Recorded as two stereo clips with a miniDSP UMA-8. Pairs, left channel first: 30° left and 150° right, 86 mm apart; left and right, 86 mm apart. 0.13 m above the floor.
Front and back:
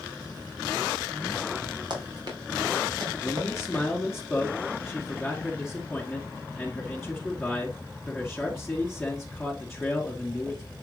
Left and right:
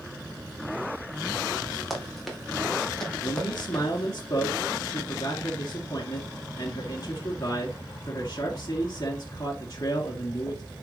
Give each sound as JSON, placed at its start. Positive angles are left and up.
{"t": 1.9, "sound": "running footsteps", "azimuth_deg": 180, "distance_m": 3.0}
{"t": 3.2, "sound": "a man speaking", "azimuth_deg": 115, "distance_m": 1.5}